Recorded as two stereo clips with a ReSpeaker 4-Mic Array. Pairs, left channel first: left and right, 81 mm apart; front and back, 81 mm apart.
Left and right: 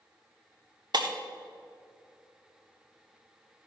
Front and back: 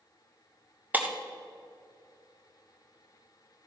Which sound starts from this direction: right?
Breaking glass, at 0.9 s.